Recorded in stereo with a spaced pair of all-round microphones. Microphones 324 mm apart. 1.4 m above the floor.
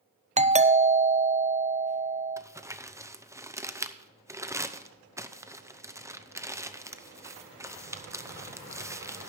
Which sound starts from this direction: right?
A doorbell, at 0.4 s.